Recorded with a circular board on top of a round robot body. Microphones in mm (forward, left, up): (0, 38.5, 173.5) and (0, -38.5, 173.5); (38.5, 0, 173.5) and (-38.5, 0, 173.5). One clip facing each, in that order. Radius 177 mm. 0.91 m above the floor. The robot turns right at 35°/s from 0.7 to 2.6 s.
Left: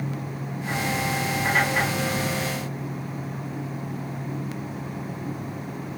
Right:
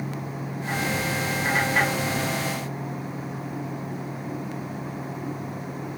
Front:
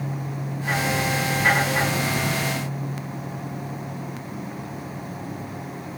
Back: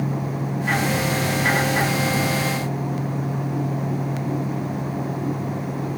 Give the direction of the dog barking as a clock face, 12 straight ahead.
I don't hear a dog barking.